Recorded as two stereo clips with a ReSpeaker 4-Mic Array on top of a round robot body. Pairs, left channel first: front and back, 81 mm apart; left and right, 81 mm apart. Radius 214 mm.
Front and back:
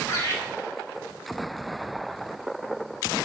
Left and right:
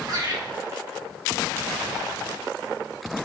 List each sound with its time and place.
0.1 s laughter: 55° right, 5.5 m